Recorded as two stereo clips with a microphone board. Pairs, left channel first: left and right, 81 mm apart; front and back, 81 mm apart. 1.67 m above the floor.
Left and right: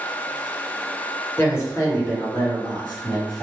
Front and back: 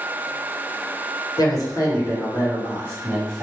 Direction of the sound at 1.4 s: 30° left.